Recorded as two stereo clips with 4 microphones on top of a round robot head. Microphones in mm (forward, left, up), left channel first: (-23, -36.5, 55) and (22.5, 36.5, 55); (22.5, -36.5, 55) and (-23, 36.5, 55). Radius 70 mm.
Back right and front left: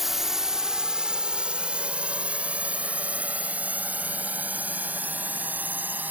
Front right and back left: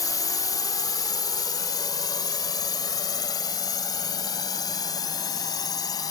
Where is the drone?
30° right; by 6.1 s 10° right.